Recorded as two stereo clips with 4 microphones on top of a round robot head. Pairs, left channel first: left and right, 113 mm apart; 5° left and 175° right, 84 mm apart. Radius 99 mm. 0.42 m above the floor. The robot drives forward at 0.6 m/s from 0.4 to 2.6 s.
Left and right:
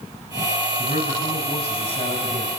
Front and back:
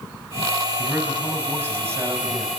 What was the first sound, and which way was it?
A man speaking, 110° left.